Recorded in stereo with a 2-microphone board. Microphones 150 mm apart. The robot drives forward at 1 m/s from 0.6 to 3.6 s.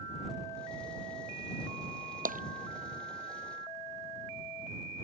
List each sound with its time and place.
2.2 s tapping: 70° right (ahead or behind); by 2.4 s 65° right (ahead or behind)